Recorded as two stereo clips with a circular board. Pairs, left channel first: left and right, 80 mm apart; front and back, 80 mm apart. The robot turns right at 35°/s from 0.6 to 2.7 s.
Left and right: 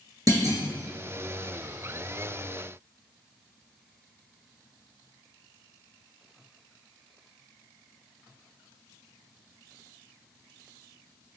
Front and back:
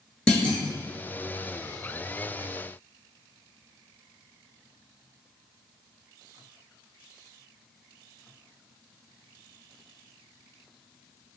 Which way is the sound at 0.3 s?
75° right.